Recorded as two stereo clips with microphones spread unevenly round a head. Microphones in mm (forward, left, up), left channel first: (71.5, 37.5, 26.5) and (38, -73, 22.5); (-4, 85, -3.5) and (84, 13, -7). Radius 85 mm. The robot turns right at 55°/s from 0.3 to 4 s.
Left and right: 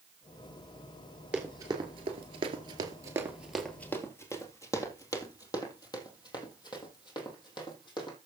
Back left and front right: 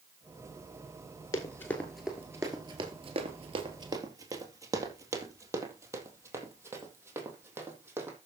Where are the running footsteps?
175° left, 2.0 m; by 8.2 s 30° left, 4.5 m.